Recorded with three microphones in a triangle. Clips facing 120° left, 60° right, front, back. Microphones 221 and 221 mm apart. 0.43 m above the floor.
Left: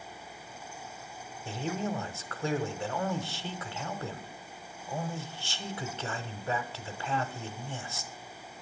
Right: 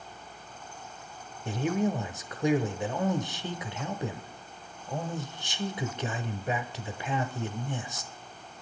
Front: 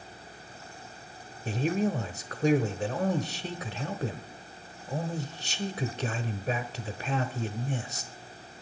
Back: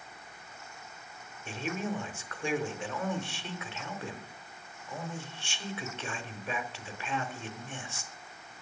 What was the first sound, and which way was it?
A man speaking, 5° left.